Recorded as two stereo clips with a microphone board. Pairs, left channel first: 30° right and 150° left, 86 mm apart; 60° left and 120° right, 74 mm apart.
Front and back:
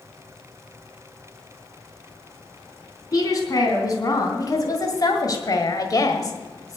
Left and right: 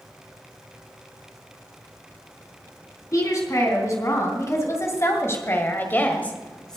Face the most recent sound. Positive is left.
turn(degrees=-20)